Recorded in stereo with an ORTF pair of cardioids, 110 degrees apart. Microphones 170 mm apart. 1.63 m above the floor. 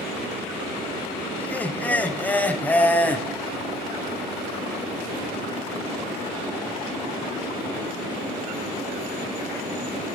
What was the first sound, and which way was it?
Laughter, 10° left.